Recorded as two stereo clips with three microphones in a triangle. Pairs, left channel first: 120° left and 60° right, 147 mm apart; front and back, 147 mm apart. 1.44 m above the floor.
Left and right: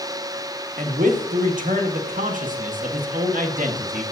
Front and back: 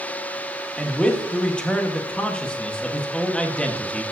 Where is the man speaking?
85° right, 1.4 m.